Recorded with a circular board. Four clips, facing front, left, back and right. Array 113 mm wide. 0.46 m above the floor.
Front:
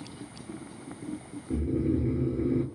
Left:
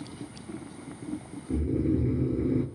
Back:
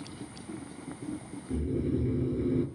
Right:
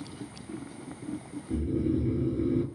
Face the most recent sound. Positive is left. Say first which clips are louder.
# left 1 dB, front 3 dB
turn(degrees=50)